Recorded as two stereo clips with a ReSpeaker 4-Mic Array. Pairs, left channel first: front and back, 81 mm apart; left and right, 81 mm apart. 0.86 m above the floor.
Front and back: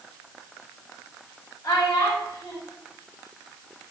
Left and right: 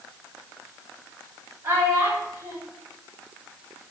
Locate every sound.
1.6 s a child speaking: 30° right, 1.5 m